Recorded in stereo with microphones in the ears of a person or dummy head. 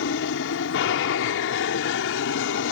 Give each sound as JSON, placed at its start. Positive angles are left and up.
{"t": 0.0, "sound": "an aircraft", "side_deg": 60}